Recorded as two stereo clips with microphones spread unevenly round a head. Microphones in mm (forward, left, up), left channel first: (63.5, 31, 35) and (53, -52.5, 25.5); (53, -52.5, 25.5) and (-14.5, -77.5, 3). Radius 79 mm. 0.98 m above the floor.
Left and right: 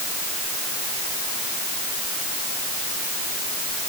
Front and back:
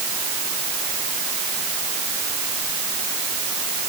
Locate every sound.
Only background noise.